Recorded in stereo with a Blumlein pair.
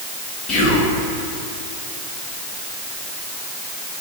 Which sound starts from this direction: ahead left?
Whispering, at 0.5 s.